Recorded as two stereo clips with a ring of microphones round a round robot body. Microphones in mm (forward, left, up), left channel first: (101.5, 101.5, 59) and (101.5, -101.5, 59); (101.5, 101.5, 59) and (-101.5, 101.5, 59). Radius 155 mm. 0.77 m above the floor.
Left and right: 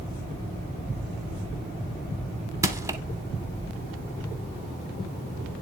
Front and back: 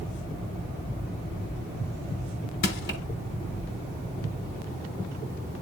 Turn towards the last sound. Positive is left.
turn(degrees=-20)